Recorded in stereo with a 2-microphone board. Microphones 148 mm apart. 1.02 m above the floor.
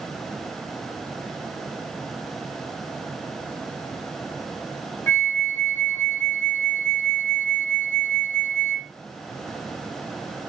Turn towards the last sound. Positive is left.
turn(degrees=15)  # may be behind; listen again after turning